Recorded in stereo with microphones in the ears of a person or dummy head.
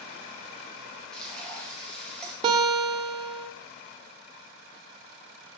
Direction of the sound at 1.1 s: 5° left (ahead or behind).